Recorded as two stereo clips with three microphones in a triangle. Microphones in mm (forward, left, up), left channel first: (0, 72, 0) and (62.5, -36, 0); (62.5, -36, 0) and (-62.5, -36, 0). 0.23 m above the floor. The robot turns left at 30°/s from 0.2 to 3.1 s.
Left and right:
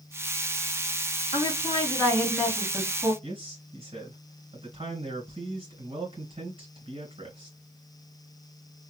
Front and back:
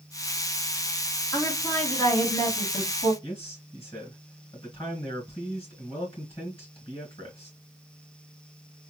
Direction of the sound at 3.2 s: 25° right.